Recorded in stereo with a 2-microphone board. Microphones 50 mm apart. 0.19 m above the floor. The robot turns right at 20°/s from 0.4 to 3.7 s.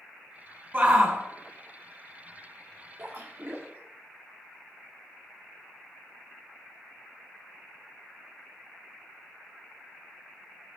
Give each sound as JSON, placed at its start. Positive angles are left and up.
{"t": 0.7, "sound": "a shout", "side_deg": -25, "distance_m": 1.9}
{"t": 3.0, "sound": "a splash", "side_deg": -45, "distance_m": 2.5}